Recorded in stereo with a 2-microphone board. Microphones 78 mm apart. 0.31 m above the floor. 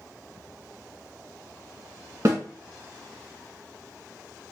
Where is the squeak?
I don't hear a squeak.